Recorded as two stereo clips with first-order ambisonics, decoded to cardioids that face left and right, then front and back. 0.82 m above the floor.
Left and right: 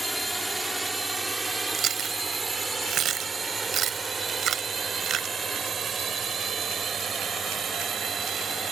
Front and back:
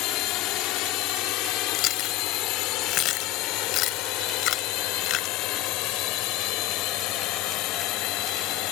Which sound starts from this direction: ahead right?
Chewing, at 1.7 s.